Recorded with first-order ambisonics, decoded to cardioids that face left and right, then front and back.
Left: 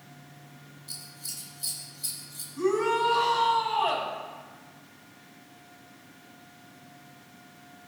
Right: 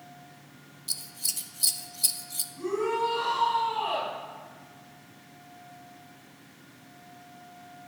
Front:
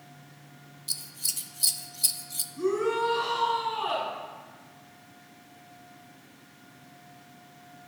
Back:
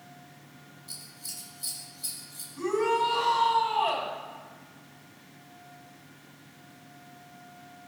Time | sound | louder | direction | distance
0.9 | scissors | right 7 dB, front 9 dB | 40° right | 0.6 m
2.5 | a shout | left 3 dB, back 1 dB | 145° left | 4 m